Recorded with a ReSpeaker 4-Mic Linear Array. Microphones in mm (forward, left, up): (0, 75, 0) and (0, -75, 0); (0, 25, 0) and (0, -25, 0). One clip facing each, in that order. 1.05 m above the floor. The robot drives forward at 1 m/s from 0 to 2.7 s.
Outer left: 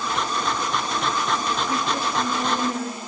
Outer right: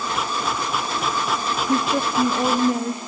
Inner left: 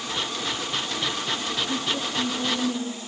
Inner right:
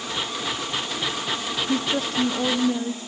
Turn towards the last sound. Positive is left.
turn(degrees=-30)  # may be behind; listen again after turning